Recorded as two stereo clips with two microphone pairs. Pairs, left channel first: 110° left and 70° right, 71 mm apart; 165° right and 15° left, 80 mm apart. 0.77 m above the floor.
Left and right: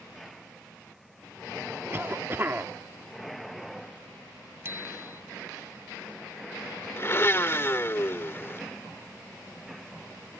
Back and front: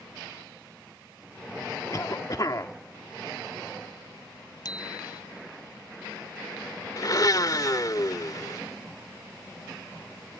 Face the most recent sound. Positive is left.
turn(degrees=160)